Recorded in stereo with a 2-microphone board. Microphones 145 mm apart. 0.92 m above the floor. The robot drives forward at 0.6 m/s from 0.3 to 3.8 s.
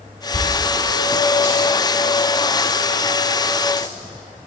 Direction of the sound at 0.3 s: 50° left (ahead or behind).